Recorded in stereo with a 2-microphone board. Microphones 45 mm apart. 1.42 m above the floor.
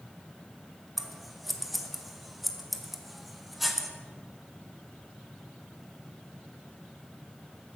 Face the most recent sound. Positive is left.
turn(degrees=-5)  # may be behind; listen again after turning